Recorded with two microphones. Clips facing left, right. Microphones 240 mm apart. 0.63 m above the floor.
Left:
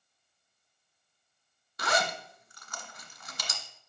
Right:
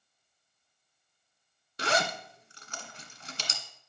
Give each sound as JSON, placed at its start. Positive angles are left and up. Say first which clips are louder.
{"t": 1.8, "sound": "a zipper", "louder": "right 1 dB", "side_deg": -30, "distance_m": 1.4}